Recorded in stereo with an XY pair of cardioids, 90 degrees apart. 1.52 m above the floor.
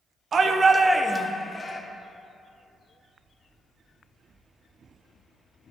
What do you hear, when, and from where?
0.3 s a shout: 55° right, 0.9 m; by 1.8 s 30° left, 1.2 m